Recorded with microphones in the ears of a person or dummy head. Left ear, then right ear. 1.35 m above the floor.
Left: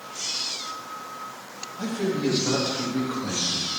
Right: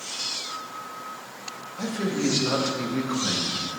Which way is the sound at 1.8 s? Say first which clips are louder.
Left 1 dB; 85° right.